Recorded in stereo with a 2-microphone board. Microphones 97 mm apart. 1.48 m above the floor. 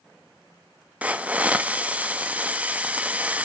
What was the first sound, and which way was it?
A hiss, 15° right (ahead or behind).